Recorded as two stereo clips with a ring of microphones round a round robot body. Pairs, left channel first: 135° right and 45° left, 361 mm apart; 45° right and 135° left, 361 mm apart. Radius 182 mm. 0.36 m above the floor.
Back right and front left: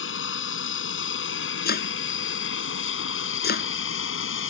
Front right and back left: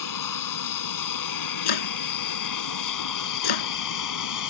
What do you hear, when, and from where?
0.0 s an aircraft: 80° right
1.6 s chopping: 70° right